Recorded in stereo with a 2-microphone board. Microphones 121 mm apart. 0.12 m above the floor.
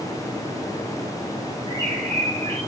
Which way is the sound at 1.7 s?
40° right (ahead or behind).